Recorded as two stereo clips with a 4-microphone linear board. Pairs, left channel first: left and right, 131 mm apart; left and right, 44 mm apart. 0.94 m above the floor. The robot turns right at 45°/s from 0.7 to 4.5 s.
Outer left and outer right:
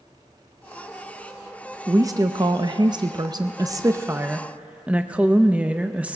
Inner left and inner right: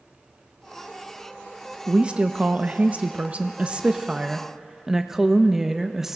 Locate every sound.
1.9 s a woman speaking: 135° right, 0.6 m; by 6.2 s 20° right, 0.6 m